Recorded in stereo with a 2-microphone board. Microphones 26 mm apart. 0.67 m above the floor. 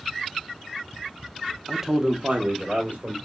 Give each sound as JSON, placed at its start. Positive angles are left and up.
{"t": 1.7, "sound": "a man speaking", "side_deg": 5, "distance_m": 0.6}